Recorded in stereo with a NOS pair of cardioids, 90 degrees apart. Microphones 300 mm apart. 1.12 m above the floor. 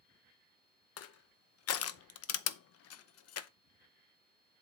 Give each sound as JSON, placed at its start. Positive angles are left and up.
{"t": 1.0, "sound": "crushing", "azimuth_deg": 55, "distance_m": 0.8}